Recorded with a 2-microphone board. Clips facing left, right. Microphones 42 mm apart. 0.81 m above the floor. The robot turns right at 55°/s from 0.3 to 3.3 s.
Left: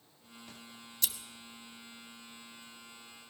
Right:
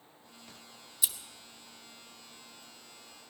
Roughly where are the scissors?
Centre.